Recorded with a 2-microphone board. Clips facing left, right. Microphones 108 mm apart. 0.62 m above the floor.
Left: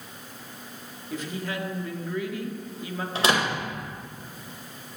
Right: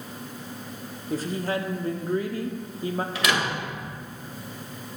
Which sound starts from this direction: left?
A door slam, at 3.1 s.